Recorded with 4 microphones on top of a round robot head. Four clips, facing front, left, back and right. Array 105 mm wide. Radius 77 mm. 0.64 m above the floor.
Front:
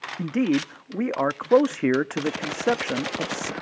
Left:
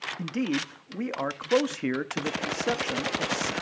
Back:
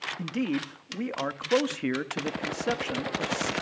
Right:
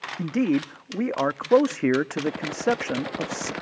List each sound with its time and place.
0.2 s a man speaking: 40° right, 0.7 m